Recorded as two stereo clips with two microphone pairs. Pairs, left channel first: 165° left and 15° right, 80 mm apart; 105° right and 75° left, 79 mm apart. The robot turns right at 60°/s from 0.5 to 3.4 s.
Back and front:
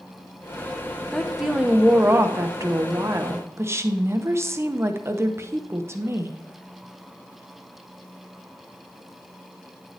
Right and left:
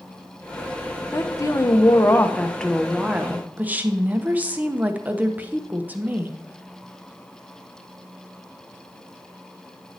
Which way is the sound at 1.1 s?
120° right.